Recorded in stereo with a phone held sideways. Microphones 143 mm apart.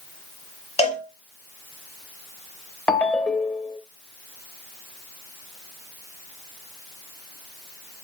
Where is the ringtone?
10° left (ahead or behind), 0.5 m.